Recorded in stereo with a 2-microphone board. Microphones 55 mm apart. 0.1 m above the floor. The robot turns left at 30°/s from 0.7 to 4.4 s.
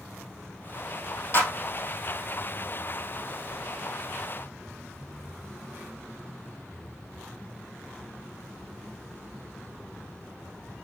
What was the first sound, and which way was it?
A clap, 45° left (ahead or behind).